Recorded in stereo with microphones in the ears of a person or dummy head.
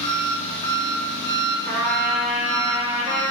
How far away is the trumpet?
About 0.8 m.